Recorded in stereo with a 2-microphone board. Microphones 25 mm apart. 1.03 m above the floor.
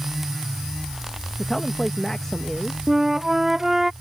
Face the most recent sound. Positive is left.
turn(degrees=-15)  # may be behind; listen again after turning